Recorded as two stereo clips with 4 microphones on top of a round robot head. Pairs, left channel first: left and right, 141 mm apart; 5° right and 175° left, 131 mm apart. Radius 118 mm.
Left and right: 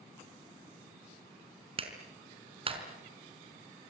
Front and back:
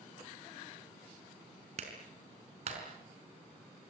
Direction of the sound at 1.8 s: 140° right.